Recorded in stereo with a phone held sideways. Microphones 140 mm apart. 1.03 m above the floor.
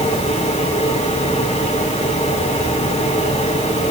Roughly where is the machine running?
Left.